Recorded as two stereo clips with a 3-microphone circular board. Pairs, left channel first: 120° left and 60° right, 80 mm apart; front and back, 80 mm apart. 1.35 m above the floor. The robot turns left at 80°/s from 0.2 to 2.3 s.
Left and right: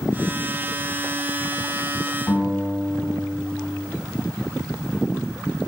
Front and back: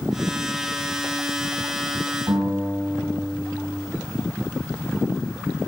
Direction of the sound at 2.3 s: 175° right.